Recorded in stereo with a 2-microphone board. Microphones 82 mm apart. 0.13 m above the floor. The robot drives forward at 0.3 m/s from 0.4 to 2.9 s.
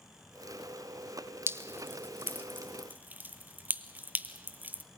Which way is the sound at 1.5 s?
30° right (ahead or behind).